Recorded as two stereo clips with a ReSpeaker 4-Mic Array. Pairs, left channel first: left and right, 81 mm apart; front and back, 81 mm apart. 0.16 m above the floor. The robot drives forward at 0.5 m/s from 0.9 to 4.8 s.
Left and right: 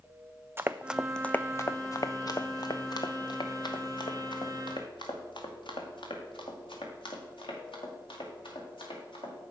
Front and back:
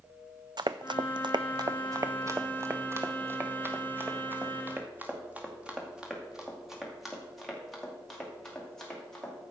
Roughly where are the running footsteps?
Behind right.